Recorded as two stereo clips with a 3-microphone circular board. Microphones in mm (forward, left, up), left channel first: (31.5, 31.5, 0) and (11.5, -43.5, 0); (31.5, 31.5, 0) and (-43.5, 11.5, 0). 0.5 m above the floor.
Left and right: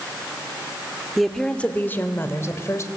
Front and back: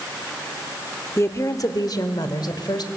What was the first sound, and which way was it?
A woman speaking, 20° right.